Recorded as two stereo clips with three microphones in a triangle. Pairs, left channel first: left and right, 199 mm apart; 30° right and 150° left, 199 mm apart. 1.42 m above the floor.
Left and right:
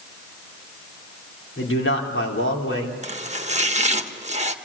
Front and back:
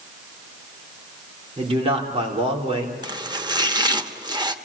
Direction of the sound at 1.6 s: 90° left.